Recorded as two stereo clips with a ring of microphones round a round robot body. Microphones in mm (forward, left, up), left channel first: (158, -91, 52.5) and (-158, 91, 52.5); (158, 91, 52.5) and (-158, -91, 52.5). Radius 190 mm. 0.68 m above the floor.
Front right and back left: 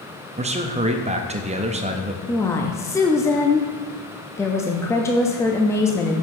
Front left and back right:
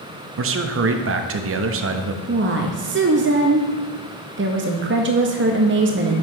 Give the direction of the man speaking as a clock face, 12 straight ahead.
5 o'clock.